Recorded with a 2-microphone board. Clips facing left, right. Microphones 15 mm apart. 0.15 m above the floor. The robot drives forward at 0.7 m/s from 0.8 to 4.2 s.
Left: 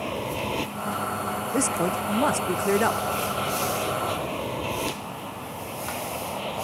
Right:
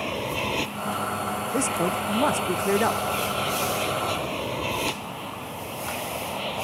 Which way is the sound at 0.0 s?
25° right (ahead or behind).